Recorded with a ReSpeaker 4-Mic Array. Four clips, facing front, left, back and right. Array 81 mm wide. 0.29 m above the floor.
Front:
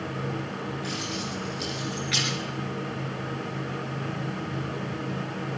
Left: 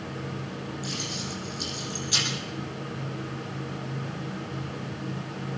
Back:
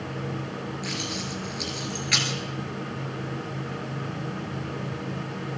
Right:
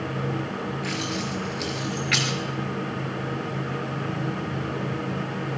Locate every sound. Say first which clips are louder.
0.8 s keys jangling: right 6 dB, even; 100° right, 4 m